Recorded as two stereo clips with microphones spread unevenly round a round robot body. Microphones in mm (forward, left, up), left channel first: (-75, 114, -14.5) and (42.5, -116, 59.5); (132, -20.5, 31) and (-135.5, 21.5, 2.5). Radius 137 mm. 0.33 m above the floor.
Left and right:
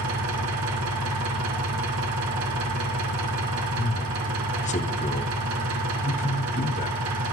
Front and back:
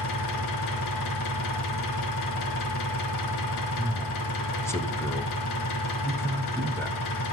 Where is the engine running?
25° right, 4 m.